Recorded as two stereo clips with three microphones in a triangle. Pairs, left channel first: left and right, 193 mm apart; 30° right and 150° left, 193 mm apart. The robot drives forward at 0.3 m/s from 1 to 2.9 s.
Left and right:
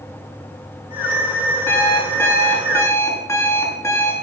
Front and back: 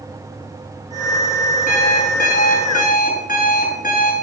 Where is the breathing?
I don't hear breathing.